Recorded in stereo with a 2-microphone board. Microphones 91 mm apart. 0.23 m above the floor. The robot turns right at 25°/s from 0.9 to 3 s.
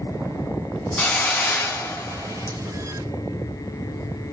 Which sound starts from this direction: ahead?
A hiss, at 1.0 s.